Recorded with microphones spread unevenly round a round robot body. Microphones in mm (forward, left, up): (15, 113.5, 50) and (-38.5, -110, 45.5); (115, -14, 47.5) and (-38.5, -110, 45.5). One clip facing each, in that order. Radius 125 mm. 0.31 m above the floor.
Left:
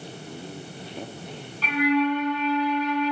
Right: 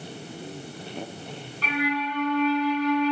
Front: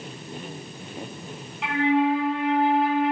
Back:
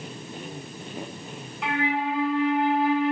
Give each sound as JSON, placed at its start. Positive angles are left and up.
{"t": 1.6, "sound": "a flute", "azimuth_deg": -125, "distance_m": 1.7}